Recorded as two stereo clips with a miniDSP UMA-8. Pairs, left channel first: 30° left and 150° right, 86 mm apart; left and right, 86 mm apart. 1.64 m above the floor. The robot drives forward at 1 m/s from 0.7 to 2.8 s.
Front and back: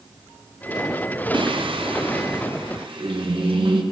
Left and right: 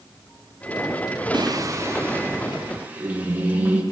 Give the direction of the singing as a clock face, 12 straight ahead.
4 o'clock.